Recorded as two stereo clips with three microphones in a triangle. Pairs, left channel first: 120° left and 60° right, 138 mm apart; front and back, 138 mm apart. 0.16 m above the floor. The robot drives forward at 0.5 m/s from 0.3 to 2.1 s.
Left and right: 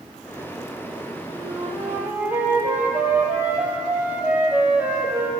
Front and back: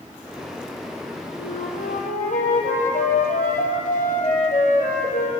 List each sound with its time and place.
1.4 s a flute: 15° left, 4.5 m; by 5.3 s 20° left, 4 m